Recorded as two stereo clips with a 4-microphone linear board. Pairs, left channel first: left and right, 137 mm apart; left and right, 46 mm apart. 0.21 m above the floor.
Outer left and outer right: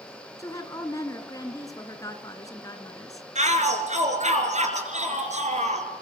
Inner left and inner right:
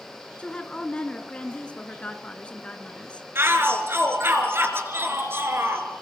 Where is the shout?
50° right (ahead or behind), 4.5 m.